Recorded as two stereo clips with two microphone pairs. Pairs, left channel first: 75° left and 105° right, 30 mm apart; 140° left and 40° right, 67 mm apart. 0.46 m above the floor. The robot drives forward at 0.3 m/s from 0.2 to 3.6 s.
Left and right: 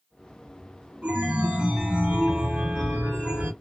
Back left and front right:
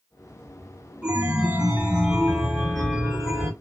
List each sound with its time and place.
1.0 s a chime: 105° right, 2 m; by 3.5 s 125° right, 2.5 m